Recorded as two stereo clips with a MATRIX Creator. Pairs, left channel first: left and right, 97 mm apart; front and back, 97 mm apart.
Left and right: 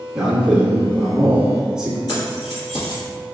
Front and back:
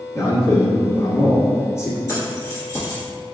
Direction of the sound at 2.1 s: 50° left.